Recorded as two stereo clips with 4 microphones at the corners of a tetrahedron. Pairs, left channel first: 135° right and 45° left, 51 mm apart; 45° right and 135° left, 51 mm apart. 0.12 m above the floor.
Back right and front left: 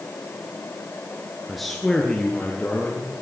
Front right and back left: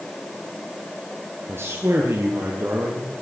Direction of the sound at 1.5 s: 135° left.